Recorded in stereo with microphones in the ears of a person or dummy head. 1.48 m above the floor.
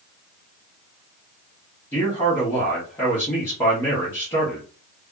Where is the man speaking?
15° left (ahead or behind), 1.2 m.